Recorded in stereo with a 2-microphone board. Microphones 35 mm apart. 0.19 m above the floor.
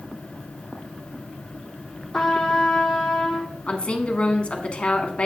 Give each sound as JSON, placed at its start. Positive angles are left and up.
{"t": 2.1, "sound": "a trumpet", "side_deg": 15, "distance_m": 1.8}
{"t": 3.7, "sound": "a woman speaking", "side_deg": 35, "distance_m": 1.4}